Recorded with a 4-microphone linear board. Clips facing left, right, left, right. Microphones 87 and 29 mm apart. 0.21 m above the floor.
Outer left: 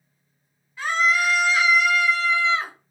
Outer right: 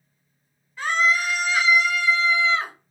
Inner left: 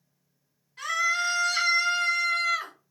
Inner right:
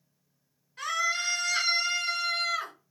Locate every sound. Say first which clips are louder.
0.8 s a scream: even, inner left 3 dB; 5° left (ahead or behind), 2 m